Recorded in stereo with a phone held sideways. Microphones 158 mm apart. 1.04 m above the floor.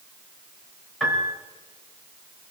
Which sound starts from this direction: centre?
A piano, at 1.0 s.